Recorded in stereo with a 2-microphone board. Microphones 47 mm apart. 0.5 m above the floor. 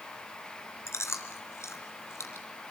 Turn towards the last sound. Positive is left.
turn(degrees=75)  # may be behind; listen again after turning